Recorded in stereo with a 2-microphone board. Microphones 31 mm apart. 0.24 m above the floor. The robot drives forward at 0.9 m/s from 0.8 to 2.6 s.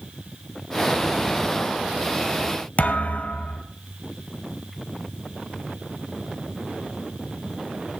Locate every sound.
2.8 s a thud: 55° left (ahead or behind), 1.4 m